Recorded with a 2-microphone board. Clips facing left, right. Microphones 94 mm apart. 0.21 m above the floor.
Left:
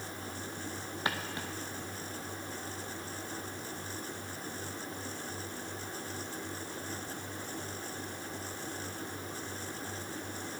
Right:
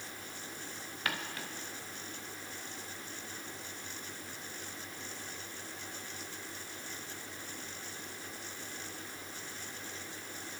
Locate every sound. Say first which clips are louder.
1.1 s footsteps: left 2 dB; 25° left (ahead or behind), 1.7 m